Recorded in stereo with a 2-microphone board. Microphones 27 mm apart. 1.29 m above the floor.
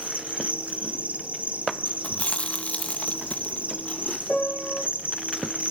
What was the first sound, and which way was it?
An insect, 80° right.